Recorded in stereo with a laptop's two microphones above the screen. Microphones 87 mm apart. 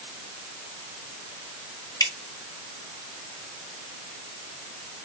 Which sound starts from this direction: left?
Dripping, at 2.0 s.